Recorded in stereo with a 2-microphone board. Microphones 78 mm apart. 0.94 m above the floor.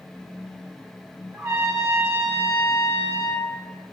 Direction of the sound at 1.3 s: 40° right (ahead or behind).